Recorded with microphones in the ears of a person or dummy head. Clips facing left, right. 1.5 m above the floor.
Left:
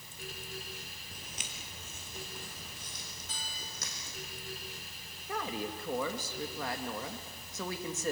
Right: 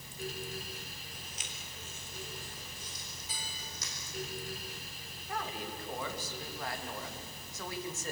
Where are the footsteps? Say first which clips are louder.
Left 1 dB; 50° left (ahead or behind), 2.5 m.